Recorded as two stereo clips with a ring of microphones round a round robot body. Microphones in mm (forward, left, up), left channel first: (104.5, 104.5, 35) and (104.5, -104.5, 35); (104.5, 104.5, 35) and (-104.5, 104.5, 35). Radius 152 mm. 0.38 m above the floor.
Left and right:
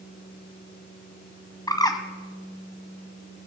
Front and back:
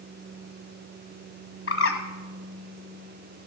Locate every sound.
1.7 s a bird: 20° left, 1.3 m